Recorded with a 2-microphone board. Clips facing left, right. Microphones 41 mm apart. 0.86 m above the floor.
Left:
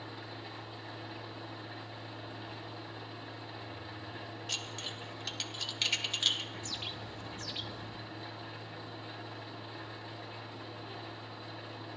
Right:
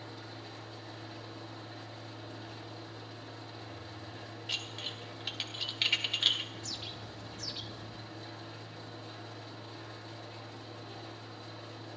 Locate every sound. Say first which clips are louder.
0.0 s an engine running: left 1 dB; 25° left (ahead or behind), 4 m
4.5 s dishes clattering: right 2 dB; 15° right (ahead or behind), 1.0 m
6.5 s a bird: left 2 dB; 40° left (ahead or behind), 1.1 m